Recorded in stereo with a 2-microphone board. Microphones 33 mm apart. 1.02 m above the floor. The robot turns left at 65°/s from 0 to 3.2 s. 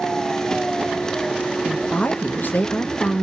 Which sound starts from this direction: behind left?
A woman speaking, at 1.6 s.